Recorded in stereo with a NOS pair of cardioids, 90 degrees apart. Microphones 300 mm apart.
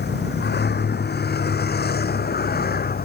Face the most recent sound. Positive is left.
turn(degrees=30)